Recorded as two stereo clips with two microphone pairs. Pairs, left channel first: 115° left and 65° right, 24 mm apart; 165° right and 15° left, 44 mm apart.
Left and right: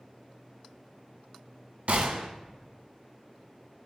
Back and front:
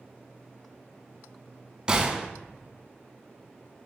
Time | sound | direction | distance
1.9 | a gunshot | 55° right | 0.7 m